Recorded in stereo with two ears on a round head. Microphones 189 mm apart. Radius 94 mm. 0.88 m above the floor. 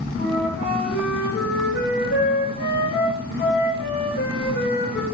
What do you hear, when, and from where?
0.2 s a flute: 50° left (ahead or behind), 2.5 m